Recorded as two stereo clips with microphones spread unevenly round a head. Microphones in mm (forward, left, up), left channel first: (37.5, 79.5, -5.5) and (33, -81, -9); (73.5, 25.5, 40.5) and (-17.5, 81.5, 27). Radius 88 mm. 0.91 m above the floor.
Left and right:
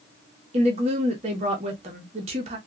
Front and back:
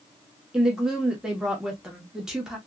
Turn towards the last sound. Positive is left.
turn(degrees=-135)